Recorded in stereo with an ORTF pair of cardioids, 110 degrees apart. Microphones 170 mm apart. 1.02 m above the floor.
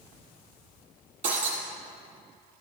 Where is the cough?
No cough in this recording.